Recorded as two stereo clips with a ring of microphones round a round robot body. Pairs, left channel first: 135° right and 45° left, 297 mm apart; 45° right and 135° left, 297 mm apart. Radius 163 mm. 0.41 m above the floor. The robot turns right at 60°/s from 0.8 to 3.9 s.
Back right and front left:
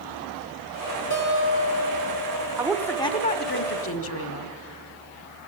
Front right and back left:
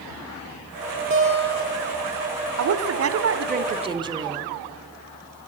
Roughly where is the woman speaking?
Behind left.